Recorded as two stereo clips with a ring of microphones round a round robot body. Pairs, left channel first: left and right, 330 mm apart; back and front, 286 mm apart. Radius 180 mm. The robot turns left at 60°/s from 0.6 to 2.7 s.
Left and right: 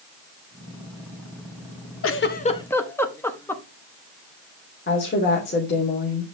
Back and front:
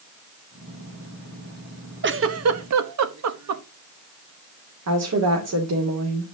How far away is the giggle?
About 1.1 m.